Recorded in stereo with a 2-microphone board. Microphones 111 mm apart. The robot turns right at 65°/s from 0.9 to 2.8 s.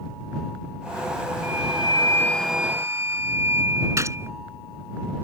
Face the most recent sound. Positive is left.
turn(degrees=-25)  # may be behind; listen again after turning